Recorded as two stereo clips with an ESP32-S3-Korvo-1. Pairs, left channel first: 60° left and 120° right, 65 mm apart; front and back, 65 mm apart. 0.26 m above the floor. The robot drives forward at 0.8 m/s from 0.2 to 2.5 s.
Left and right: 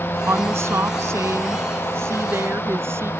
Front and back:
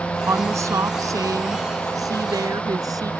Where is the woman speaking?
155° right; by 3.1 s 170° right.